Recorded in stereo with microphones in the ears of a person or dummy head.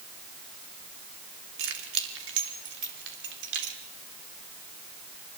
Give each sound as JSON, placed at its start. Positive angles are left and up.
{"t": 1.6, "sound": "keys jangling", "side_deg": -85, "distance_m": 3.0}